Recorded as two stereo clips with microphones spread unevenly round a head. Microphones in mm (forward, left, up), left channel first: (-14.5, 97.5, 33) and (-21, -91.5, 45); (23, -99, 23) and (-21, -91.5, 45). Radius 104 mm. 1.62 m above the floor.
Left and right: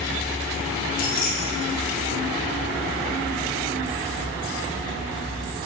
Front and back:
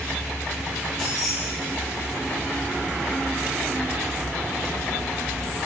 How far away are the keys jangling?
About 0.7 m.